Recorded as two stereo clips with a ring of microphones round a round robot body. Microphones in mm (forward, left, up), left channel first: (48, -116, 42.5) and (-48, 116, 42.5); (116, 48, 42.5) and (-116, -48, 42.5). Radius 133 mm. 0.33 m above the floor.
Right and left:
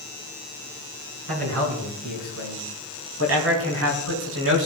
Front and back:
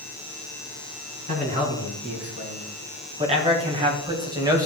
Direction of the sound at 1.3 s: 140° left.